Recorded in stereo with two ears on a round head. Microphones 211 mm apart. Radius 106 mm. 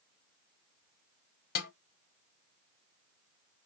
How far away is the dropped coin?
No dropped coin in this recording.